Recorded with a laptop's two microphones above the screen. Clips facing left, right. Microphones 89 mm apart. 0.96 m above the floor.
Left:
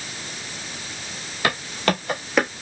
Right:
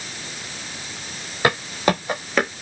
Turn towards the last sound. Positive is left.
turn(degrees=5)  # may be behind; listen again after turning